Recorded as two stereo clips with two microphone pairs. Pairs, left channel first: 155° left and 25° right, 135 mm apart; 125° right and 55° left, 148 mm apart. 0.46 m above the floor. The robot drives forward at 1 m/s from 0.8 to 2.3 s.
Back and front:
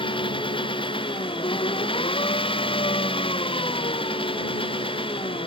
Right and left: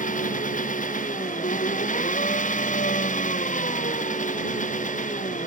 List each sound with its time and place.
0.0 s an engine running: 155° right